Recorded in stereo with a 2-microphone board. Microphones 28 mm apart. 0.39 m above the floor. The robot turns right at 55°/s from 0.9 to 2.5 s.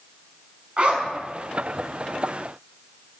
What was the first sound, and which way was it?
A zipper, 45° right (ahead or behind).